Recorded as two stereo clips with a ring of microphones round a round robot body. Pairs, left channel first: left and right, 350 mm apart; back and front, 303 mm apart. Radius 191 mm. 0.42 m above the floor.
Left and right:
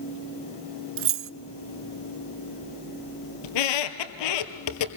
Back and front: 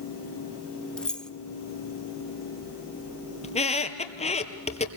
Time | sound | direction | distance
1.0 | keys jangling | 95° right | 0.6 m
3.4 | a squeak | 110° left | 2.0 m